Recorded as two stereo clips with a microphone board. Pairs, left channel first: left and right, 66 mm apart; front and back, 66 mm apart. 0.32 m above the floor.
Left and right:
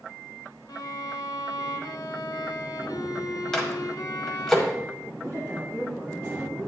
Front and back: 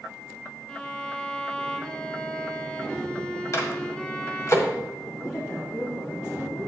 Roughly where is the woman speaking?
Ahead right.